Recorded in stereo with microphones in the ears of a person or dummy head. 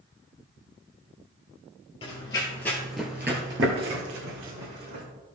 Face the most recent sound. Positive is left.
turn(degrees=-65)  # may be behind; listen again after turning